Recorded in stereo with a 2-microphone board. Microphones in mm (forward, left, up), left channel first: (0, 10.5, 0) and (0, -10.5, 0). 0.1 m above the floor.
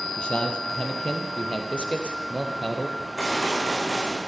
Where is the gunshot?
10° left (ahead or behind), 8.5 m.